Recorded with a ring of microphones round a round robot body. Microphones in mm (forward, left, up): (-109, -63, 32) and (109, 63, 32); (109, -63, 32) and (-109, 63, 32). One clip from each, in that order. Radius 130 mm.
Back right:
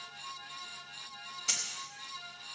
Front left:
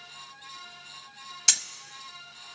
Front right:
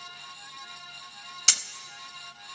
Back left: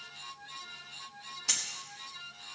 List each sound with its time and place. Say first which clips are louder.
1.5 s keys jangling: front left 9 dB, front right 8 dB; 10° right, 0.6 m